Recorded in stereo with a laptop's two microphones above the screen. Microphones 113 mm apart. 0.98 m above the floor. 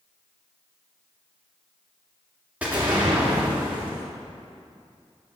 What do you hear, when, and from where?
2.6 s an explosion: 15° right (ahead or behind), 1.9 m